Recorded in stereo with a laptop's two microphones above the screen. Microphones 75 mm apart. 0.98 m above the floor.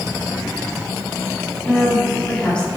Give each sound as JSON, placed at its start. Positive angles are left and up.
{"t": 1.6, "sound": "a woman speaking", "side_deg": 15, "distance_m": 1.7}